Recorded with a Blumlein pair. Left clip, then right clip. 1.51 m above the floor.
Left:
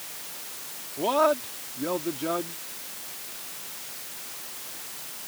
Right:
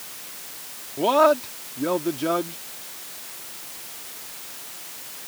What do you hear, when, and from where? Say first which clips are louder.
1.0 s a man speaking: right 5 dB; 15° right